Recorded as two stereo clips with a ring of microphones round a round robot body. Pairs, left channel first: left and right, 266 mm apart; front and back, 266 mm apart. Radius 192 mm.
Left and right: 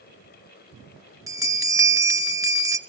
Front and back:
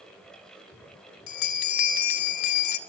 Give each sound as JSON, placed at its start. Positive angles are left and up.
{"t": 1.3, "sound": "a bell", "azimuth_deg": -10, "distance_m": 1.3}